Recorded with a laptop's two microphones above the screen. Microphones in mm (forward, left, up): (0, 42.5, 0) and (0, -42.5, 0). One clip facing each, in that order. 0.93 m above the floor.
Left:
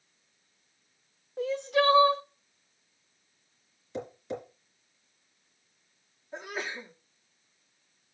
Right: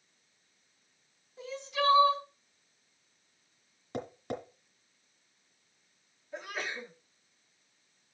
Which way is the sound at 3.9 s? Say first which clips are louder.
Left 1 dB; 60° right (ahead or behind).